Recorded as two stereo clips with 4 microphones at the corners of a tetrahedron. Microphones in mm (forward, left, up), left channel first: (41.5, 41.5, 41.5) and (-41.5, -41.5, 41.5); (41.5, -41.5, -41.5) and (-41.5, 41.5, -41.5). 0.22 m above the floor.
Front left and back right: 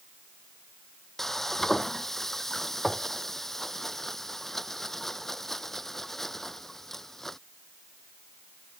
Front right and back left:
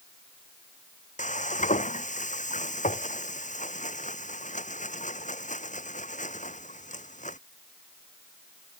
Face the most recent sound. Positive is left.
turn(degrees=-45)